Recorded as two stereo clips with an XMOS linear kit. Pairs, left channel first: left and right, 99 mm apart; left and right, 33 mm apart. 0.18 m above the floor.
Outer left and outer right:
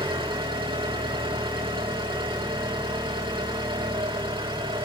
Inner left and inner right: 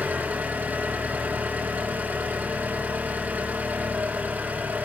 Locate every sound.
0.0 s an engine running: 60° right (ahead or behind), 4.5 m